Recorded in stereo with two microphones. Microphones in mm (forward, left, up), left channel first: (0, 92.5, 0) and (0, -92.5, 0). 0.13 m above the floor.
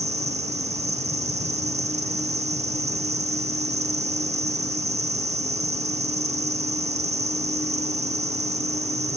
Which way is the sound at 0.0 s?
35° right (ahead or behind).